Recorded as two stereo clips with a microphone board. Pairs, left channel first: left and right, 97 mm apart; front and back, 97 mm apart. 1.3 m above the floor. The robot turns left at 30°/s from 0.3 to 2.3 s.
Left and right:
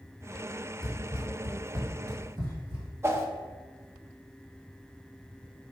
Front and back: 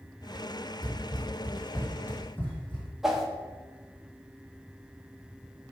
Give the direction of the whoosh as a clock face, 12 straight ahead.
3 o'clock.